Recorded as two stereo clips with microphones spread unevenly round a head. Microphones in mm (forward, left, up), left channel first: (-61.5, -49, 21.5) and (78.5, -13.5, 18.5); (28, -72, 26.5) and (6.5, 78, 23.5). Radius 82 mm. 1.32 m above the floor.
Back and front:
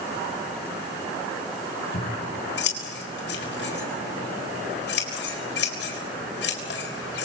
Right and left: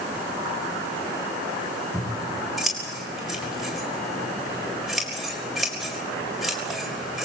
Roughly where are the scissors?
Behind.